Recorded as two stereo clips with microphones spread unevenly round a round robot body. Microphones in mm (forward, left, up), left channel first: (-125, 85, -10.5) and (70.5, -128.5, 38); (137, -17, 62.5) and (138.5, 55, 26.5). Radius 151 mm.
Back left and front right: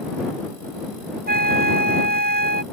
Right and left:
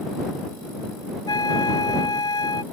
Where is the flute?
105° right.